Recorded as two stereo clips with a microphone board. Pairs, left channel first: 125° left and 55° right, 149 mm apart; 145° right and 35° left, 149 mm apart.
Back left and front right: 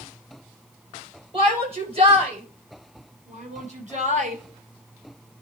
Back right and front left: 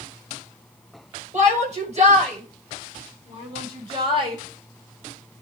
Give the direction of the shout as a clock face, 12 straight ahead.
12 o'clock.